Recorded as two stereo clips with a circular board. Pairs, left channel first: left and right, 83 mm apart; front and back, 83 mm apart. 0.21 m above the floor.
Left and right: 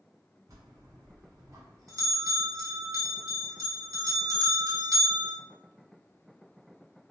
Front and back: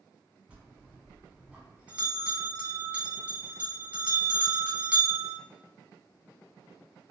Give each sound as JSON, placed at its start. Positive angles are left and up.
{"t": 0.5, "sound": "a bell", "azimuth_deg": -115, "distance_m": 1.1}